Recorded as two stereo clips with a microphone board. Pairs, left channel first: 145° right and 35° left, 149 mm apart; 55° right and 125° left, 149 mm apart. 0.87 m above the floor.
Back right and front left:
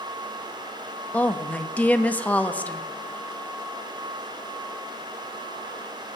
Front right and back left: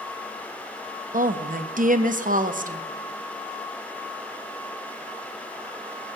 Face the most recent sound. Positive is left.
turn(degrees=135)